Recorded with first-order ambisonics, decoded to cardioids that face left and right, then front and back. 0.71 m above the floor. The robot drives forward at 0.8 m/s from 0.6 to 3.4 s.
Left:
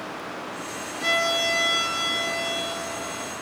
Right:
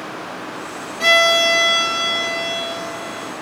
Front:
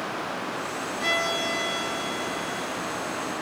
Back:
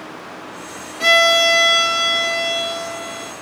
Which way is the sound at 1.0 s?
135° right.